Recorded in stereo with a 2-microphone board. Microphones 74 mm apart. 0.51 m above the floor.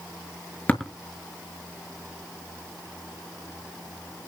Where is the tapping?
20° left (ahead or behind), 6 m.